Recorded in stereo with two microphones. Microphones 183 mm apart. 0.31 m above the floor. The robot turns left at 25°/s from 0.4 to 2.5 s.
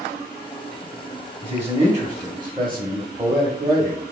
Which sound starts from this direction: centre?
A man speaking, at 1.4 s.